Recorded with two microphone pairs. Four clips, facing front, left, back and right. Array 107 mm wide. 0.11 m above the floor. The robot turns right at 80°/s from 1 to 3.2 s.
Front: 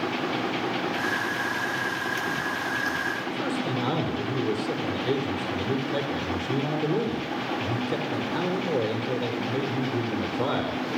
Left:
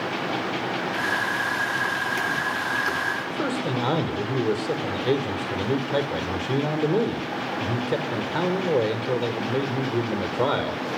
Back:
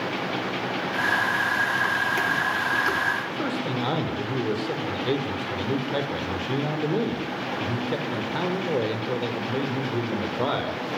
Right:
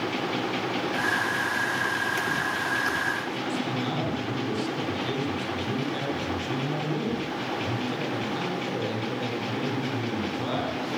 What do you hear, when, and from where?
3.3 s a man speaking: 110° left, 4.5 m